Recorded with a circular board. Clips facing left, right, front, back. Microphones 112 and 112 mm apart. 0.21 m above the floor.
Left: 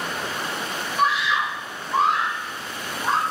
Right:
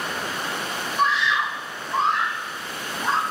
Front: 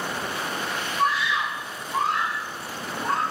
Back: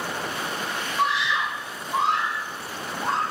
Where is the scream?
175° left, 9 m.